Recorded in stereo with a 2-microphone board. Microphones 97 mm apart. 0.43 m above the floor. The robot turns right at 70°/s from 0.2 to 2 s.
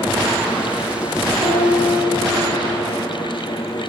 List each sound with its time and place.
1.4 s a piano: 80° right, 1.5 m; by 2.9 s 40° right, 1.5 m